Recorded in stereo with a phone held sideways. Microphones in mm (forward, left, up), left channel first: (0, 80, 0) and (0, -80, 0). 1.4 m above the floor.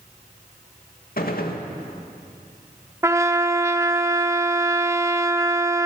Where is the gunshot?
70° left (ahead or behind), 2 m.